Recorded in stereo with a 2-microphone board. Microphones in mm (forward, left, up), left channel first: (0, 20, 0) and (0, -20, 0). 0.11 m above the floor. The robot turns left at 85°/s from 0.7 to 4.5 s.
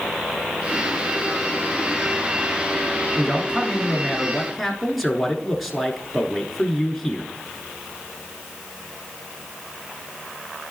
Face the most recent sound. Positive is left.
turn(degrees=0)  # may be behind; listen again after turning